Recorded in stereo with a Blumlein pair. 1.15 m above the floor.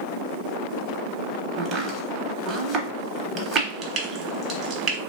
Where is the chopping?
25° right, 0.8 m.